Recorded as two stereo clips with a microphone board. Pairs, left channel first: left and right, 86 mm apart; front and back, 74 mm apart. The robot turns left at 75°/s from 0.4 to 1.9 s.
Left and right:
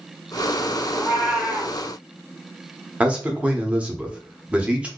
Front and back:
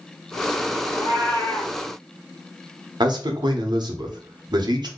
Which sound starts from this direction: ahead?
A cat meowing, at 0.9 s.